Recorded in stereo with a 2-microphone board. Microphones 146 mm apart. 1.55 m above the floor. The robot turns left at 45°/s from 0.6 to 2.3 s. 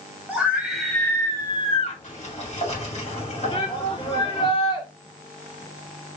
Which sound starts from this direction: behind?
A scream, at 0.3 s.